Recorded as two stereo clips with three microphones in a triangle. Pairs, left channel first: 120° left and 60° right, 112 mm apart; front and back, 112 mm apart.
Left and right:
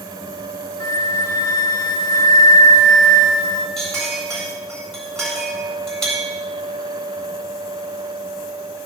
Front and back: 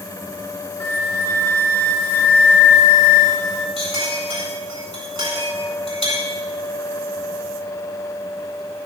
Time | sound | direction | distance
0.8 | a flute | 65° left | 1.7 m
3.8 | a clink | 155° right | 8 m